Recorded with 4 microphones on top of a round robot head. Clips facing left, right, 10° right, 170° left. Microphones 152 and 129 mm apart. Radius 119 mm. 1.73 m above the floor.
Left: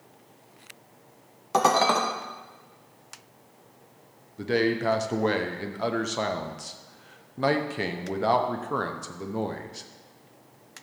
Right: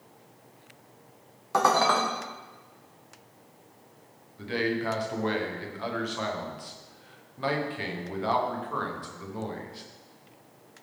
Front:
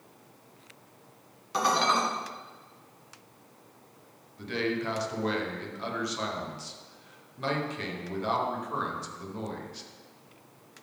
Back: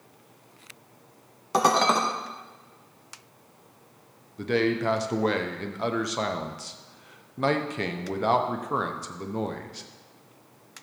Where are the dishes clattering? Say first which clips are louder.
Left 2 dB, back 4 dB; 150° left, 0.9 m.